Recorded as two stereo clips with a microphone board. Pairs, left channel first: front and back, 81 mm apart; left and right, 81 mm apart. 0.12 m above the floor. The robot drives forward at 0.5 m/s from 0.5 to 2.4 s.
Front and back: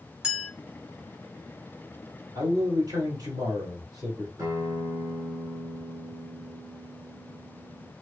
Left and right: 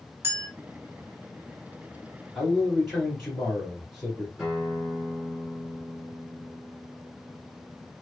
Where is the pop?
I don't hear a pop.